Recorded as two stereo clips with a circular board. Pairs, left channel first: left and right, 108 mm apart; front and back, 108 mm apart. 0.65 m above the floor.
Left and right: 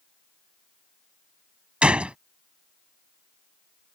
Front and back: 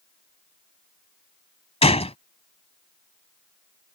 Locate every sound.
1.8 s a gunshot: 10° right